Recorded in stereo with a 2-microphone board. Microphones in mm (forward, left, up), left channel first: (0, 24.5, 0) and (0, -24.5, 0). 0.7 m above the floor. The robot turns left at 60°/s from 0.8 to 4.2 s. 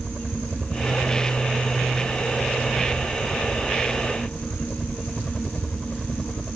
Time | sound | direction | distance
0.0 | a helicopter | 150° right | ?